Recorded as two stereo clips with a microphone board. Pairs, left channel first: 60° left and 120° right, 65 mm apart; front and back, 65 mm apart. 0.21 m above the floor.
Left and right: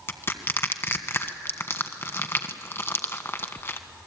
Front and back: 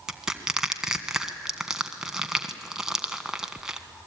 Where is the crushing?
100° left, 1.4 m.